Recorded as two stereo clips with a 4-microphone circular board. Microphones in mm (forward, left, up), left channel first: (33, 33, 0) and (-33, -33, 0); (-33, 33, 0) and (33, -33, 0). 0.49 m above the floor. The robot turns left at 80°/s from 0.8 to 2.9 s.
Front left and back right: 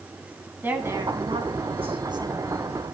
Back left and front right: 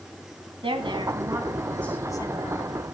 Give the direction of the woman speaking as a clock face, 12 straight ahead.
2 o'clock.